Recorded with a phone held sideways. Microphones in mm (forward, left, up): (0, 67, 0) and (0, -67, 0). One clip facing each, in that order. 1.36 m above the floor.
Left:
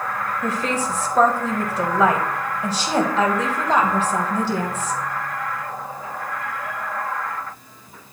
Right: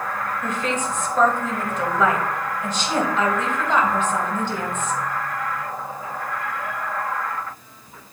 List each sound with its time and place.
0.4 s a woman speaking: 35° left (ahead or behind), 1.3 m